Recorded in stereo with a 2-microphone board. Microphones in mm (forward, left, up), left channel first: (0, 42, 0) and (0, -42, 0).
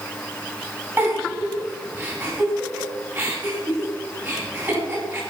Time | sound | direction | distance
1.0 | a giggle | 20° right (ahead or behind) | 4 m